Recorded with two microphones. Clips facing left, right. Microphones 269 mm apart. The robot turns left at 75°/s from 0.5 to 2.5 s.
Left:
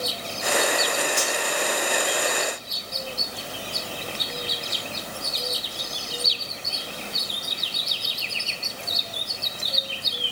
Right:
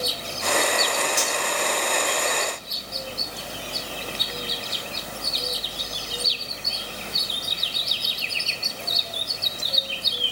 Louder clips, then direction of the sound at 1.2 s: Left 1 dB; 10° right (ahead or behind).